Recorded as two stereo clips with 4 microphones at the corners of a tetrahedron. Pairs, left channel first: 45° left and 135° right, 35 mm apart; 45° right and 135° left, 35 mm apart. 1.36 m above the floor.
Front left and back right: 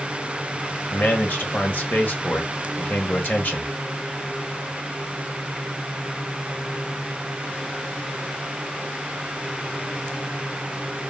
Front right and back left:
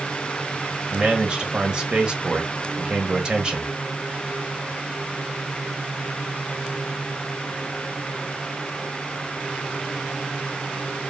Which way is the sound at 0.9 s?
70° left.